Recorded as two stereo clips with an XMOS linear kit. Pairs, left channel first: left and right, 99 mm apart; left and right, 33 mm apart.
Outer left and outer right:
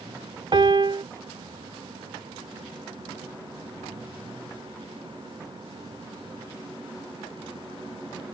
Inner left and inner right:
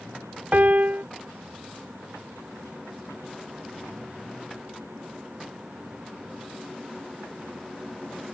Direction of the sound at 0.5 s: 55° right (ahead or behind).